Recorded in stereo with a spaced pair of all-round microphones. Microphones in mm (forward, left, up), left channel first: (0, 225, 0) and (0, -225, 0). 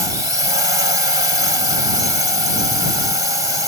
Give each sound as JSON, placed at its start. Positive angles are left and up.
{"t": 0.0, "sound": "a drone", "side_deg": 80}